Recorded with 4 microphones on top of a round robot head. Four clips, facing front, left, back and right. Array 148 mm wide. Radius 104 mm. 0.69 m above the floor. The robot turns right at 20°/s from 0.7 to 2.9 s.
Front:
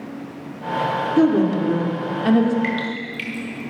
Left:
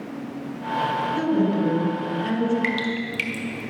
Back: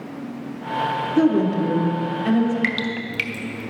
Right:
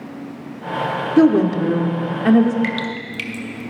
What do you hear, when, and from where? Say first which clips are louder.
1.2 s a woman speaking: right 10 dB, front 1 dB; 90° right, 1.5 m; by 2.5 s 65° right, 1.5 m
2.6 s dripping: right 1 dB, front 1 dB; 175° right, 1.2 m; by 3.7 s 170° right, 1.2 m